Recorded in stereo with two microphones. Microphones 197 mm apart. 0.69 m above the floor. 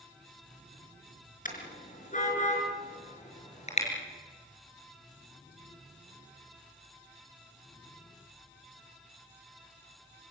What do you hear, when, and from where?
1.4 s a car horn: 45° left (ahead or behind), 5 m; by 3.9 s 35° left (ahead or behind), 6 m